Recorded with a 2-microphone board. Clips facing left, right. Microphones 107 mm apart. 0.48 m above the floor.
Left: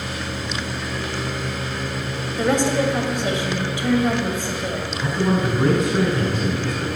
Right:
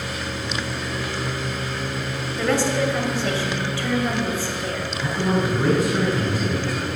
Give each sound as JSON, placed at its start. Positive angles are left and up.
{"t": 2.4, "sound": "a woman speaking", "side_deg": 20, "distance_m": 2.0}
{"t": 5.0, "sound": "a man speaking", "side_deg": 20, "distance_m": 5.5}